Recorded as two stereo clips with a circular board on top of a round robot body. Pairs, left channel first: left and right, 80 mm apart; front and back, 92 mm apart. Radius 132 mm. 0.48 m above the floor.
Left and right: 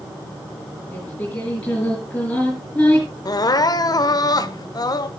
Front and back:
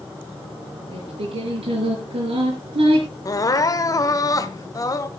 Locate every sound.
0.9 s singing: 165° left, 6 m
3.2 s crying: 50° left, 0.9 m